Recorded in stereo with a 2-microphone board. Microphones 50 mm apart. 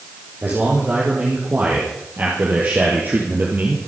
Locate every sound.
0.4 s a man speaking: 45° right (ahead or behind), 5.5 m; by 3.8 s 40° right (ahead or behind), 3 m